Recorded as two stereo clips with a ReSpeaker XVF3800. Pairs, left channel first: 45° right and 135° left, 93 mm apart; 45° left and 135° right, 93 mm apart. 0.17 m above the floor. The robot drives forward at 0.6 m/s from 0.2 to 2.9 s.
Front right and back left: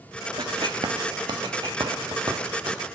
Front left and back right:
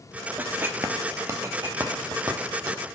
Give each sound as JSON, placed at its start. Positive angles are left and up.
{"t": 0.4, "sound": "writing", "azimuth_deg": 155, "distance_m": 0.5}